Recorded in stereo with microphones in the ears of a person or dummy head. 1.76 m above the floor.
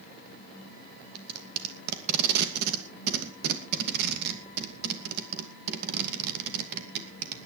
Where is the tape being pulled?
55° right (ahead or behind), 2.5 m.